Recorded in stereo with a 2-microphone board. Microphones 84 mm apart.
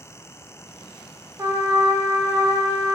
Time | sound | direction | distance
1.4 | a trumpet | 30° right (ahead or behind) | 0.5 m